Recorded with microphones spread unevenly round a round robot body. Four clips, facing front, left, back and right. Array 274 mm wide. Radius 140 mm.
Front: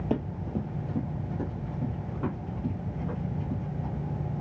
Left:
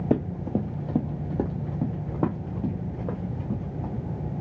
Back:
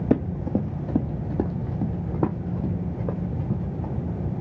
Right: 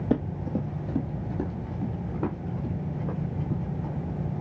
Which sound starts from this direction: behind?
Running footsteps, at 0.1 s.